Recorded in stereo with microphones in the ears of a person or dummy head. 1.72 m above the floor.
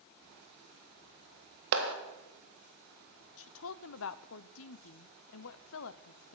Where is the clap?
60° right (ahead or behind), 1.7 m.